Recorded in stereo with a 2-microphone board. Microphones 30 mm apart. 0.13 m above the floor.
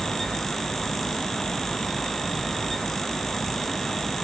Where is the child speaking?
I don't hear a child speaking.